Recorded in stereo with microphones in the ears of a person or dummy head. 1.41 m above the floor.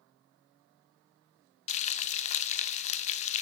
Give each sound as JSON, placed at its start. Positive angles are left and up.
{"t": 1.7, "sound": "frying", "side_deg": 40, "distance_m": 0.6}